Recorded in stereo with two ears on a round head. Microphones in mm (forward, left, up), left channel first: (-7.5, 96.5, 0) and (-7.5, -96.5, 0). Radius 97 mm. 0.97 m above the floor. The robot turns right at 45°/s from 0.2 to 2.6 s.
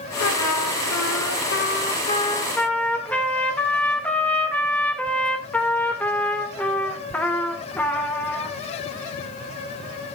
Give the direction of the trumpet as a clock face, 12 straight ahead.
10 o'clock.